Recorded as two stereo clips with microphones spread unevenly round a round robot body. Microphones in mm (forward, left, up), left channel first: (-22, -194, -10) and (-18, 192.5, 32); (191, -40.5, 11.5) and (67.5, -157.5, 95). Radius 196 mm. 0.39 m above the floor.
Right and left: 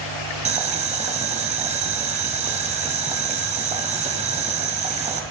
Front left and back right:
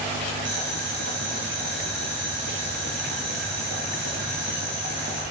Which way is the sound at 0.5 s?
165° left.